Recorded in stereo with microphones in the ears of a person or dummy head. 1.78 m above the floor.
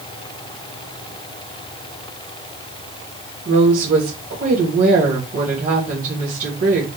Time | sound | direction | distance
3.5 | a woman speaking | 40° right (ahead or behind) | 1.4 m